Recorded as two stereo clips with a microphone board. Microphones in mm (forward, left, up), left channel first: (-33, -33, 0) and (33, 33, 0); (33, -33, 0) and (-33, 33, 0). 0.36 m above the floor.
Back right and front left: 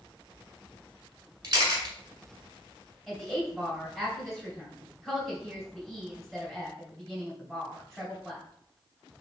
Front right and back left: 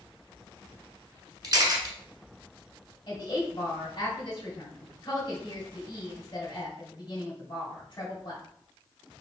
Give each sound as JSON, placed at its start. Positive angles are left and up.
{"t": 1.4, "sound": "a camera shutter", "azimuth_deg": 85, "distance_m": 1.0}
{"t": 3.1, "sound": "a woman speaking", "azimuth_deg": -45, "distance_m": 1.8}